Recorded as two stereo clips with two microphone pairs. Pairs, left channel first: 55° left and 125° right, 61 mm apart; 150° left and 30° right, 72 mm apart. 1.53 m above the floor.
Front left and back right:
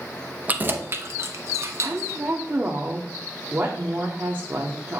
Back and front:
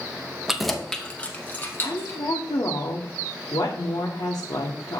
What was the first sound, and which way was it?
Keys jangling, 100° right.